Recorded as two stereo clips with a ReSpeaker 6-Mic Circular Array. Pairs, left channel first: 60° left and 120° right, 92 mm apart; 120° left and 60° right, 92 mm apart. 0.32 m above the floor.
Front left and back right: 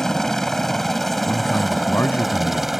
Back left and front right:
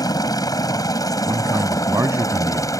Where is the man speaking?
5° right.